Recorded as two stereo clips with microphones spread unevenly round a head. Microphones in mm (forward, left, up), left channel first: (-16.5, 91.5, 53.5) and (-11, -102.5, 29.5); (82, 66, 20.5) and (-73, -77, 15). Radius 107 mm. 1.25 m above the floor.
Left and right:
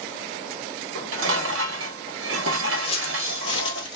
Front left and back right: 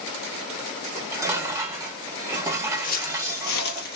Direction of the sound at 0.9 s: 60° right.